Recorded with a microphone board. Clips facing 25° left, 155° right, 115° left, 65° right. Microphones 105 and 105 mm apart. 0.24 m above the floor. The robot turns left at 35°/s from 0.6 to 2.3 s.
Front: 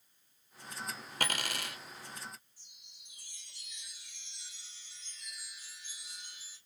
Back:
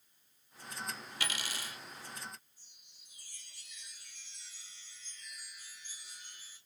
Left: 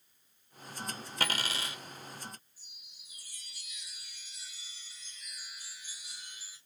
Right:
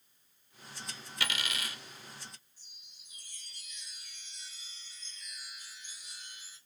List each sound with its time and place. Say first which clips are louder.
1.2 s a dropped coin: front 5 dB, left 3 dB; 65° left, 0.7 m; by 1.8 s 45° left, 0.7 m
2.6 s a chime: front 3 dB, left 2 dB; 30° left, 3 m